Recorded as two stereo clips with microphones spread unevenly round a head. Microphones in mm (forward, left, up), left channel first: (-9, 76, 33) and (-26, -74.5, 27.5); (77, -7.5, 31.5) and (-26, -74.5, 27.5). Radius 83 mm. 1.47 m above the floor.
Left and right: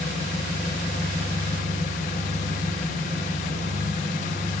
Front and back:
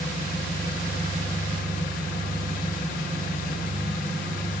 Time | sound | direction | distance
0.0 | an engine running | 35° left | 1.5 m